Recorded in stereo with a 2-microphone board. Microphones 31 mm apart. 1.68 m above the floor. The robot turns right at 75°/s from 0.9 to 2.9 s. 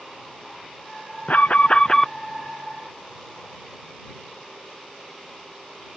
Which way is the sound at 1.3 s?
110° left.